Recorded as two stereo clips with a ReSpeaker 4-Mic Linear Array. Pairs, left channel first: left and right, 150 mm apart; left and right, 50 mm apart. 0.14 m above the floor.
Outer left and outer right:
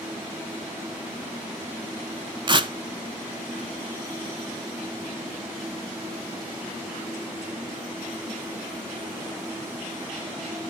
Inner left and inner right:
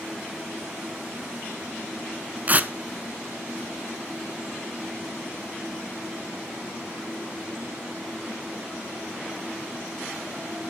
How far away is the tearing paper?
About 0.6 m.